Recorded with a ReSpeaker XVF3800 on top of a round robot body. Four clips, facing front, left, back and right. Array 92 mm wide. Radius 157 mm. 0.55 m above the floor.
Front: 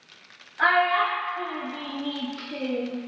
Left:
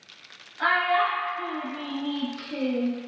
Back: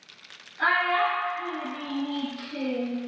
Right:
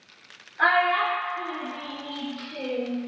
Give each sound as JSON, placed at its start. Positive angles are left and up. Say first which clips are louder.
{"t": 0.6, "sound": "a child speaking", "louder": "right 1 dB, front 2 dB", "azimuth_deg": -45, "distance_m": 1.1}